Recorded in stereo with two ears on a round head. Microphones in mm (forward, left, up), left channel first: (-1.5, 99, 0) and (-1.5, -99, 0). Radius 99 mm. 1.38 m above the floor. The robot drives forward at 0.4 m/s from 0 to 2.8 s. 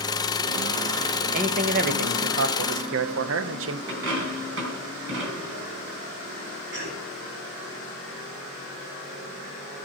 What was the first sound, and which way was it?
A man speaking, 35° right (ahead or behind).